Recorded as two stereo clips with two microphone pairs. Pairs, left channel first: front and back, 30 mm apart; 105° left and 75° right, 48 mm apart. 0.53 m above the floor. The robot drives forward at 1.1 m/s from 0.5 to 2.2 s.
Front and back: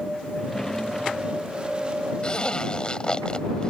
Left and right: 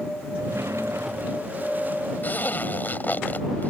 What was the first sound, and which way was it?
A drawer, 70° right.